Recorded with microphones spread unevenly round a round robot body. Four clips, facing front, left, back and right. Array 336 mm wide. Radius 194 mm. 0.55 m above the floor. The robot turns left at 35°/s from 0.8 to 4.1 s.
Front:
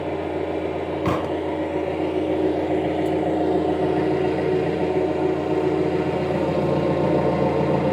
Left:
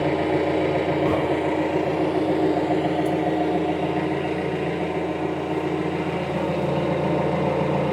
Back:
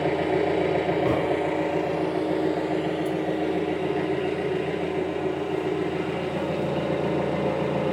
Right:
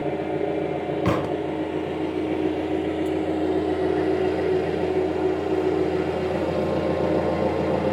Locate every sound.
0.0 s an engine running: 115° left, 6.5 m; by 7.9 s straight ahead, 6.5 m
1.1 s a thud: 65° right, 1.8 m; by 1.4 s 80° right, 1.8 m